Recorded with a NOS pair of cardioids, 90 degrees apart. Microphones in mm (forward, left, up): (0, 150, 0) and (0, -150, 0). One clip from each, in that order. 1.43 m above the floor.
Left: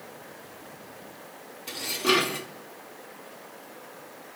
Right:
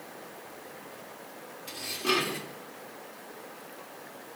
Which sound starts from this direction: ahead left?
Dishes clattering, at 1.7 s.